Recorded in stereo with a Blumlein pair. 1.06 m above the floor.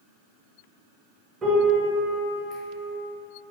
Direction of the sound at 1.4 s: 20° right.